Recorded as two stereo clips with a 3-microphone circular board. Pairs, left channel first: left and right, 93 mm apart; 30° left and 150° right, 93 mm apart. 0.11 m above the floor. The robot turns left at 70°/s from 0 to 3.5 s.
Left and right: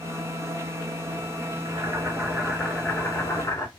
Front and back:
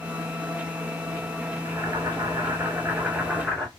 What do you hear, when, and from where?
1.6 s boiling: 115° right, 2 m; by 3.7 s 115° left, 2 m